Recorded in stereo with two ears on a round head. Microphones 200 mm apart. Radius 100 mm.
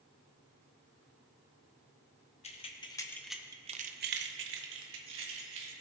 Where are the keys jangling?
30° left (ahead or behind), 1.1 m; by 5.7 s 60° right (ahead or behind), 1.8 m.